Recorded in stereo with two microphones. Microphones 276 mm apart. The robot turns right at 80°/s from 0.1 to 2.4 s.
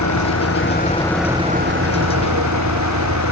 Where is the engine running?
90° left; by 3.3 s 85° right.